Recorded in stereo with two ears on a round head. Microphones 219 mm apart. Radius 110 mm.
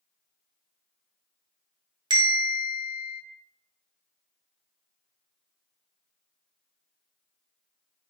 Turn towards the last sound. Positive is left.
turn(degrees=-20)  # may be behind; listen again after turning